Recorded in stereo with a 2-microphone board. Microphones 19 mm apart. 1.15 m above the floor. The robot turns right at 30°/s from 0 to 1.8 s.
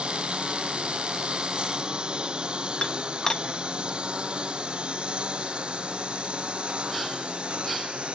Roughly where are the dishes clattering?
Left.